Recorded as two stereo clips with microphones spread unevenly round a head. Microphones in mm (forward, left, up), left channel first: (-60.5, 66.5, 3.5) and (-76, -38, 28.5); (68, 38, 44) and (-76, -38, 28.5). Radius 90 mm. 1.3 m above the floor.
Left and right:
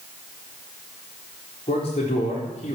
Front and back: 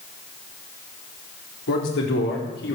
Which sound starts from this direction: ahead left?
A man speaking, at 1.7 s.